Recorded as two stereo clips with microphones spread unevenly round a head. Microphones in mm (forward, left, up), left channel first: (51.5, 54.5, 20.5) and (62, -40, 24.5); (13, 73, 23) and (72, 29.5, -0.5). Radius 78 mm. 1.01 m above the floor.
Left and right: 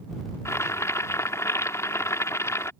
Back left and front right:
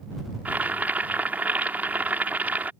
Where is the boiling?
35° left.